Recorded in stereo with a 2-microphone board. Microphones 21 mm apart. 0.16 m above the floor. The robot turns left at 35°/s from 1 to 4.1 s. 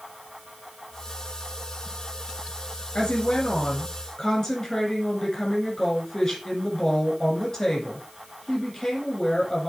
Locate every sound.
3.0 s a woman speaking: 65° left, 6 m; by 9.7 s 25° left, 6 m